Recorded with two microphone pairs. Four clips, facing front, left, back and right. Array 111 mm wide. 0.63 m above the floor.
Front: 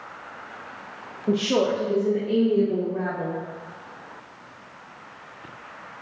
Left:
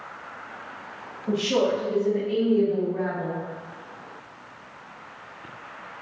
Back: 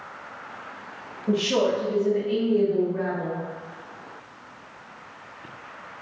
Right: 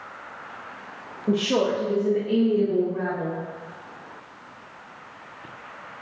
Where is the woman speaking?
50° right, 0.7 m; by 3.4 s 25° right, 1.8 m.